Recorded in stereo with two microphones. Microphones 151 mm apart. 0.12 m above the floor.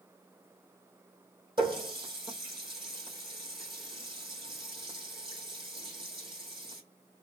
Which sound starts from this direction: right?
A running tap, at 1.6 s.